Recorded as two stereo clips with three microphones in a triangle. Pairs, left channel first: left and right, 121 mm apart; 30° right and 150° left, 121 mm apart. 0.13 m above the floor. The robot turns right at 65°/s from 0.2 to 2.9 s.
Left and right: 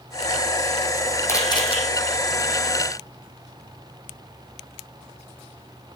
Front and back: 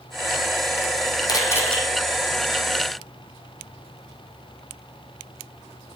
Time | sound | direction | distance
1.3 | a camera shutter | 20° left | 3 m